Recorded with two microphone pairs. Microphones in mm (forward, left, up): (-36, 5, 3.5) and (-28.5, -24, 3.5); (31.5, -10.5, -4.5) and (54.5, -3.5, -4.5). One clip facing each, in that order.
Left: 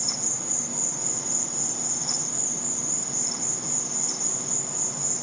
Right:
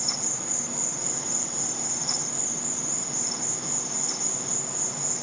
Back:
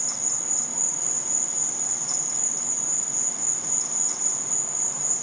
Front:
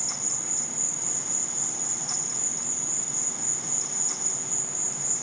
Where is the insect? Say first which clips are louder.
Right 1 dB, back 2 dB; 150° right, 1.0 m.